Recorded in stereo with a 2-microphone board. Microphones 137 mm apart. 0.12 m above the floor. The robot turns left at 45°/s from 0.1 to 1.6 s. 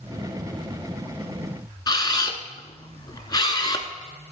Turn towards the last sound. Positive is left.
turn(degrees=30)  # may be behind; listen again after turning